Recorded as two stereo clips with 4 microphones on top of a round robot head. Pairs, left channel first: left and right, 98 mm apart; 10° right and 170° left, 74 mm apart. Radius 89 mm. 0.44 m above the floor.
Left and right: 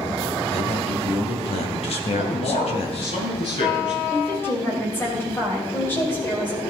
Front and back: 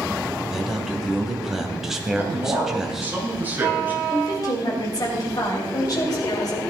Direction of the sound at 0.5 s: 85° left.